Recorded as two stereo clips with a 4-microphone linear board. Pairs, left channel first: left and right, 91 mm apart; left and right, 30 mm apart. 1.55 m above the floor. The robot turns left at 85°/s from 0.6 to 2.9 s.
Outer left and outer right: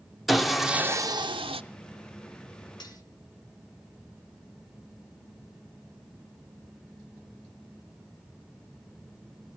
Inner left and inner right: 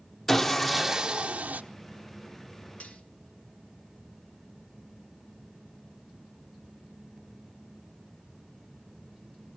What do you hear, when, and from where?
0.3 s sawing: straight ahead, 0.8 m; by 1.6 s 85° right, 0.8 m
2.8 s cutlery clinking: 50° left (ahead or behind), 2.0 m; by 3.0 s 45° left (ahead or behind), 2.0 m